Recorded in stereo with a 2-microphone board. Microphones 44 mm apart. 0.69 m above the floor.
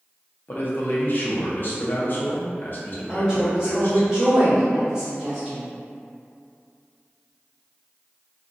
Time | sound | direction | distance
0.5 | a man speaking | 45° left (ahead or behind) | 0.7 m
3.1 | a woman speaking | 15° right (ahead or behind) | 0.9 m